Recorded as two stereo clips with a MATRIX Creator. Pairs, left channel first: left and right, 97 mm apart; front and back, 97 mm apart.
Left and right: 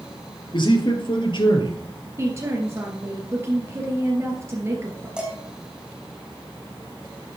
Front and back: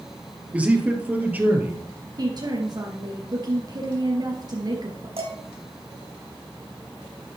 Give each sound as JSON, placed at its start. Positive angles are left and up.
{"t": 0.5, "sound": "a man speaking", "azimuth_deg": 105, "distance_m": 3.5}
{"t": 2.2, "sound": "a woman speaking", "azimuth_deg": -145, "distance_m": 3.0}
{"t": 5.2, "sound": "dishes clattering", "azimuth_deg": -170, "distance_m": 4.5}